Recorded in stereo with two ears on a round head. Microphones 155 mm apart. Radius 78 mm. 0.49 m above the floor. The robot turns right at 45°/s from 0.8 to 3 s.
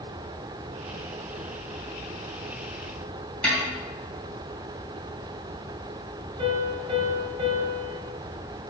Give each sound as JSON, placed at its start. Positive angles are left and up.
{"t": 3.4, "sound": "a snare drum", "side_deg": 5, "distance_m": 3.0}
{"t": 6.4, "sound": "a piano", "side_deg": -35, "distance_m": 1.7}